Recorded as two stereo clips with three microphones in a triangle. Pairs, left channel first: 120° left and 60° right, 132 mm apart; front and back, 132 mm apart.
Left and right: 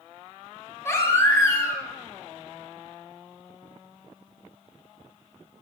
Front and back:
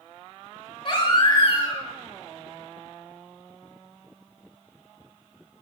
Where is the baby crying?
50° left, 1.1 m.